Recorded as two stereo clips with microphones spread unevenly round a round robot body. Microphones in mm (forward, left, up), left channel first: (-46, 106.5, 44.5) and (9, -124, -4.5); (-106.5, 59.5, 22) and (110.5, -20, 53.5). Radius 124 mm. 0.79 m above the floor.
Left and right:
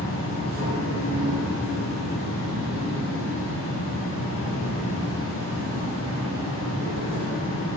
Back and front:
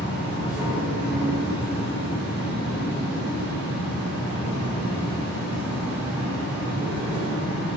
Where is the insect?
70° left, 1.8 m.